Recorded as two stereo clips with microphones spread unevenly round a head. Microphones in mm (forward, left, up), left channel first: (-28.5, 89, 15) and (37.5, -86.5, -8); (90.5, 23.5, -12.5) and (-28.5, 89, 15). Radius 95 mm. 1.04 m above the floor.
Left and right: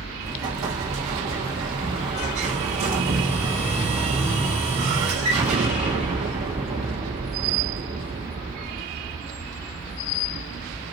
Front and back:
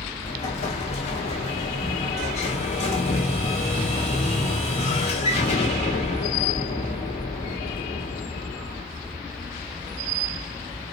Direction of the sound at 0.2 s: 30° right.